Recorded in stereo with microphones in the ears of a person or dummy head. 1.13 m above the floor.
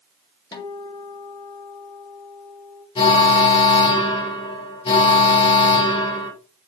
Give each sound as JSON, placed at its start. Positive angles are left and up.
{"t": 0.5, "sound": "a guitar", "side_deg": 20, "distance_m": 1.6}
{"t": 3.0, "sound": "an alarm", "side_deg": 25, "distance_m": 5.0}